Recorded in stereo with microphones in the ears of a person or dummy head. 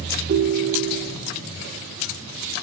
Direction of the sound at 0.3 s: 40° right (ahead or behind).